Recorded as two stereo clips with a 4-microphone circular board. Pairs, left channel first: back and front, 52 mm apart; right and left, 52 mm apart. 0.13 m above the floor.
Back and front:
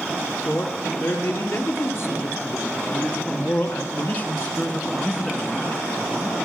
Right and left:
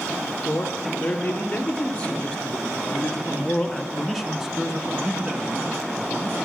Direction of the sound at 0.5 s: 150° right.